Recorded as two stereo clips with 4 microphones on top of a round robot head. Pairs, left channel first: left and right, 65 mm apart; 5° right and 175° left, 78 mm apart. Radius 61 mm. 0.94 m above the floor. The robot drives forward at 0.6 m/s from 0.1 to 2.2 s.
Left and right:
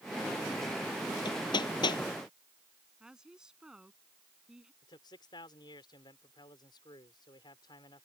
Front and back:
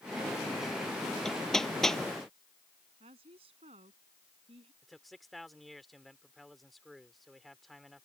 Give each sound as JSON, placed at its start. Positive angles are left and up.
{"t": 1.2, "sound": "hammering", "azimuth_deg": 80}
{"t": 3.0, "sound": "a woman speaking", "azimuth_deg": -170}
{"t": 4.8, "sound": "a man speaking", "azimuth_deg": 85}